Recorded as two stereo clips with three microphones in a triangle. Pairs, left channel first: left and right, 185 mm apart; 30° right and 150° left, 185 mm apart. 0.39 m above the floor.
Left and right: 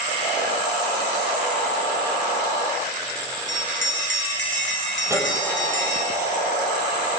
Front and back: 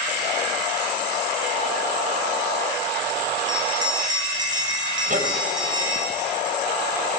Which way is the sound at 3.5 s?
80° left.